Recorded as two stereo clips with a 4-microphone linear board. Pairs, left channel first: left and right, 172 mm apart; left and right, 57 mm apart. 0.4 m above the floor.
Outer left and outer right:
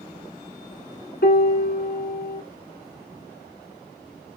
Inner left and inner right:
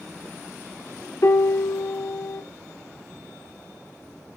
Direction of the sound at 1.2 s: 70° left (ahead or behind).